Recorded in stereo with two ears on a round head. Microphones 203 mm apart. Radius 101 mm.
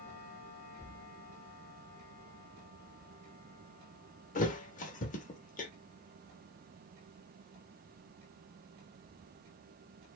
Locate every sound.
4.3 s a thud: 35° left (ahead or behind), 0.6 m